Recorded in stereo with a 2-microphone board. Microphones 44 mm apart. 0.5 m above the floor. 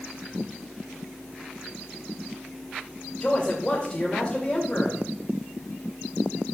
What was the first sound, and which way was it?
A man speaking, 15° left (ahead or behind).